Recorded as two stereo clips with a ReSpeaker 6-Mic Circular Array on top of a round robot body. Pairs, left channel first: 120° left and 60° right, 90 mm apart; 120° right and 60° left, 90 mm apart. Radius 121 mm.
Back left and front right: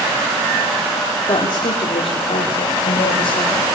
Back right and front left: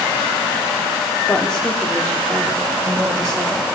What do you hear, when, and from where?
1.3 s a woman speaking: 165° left, 2.5 m; by 3.6 s 135° left, 4.5 m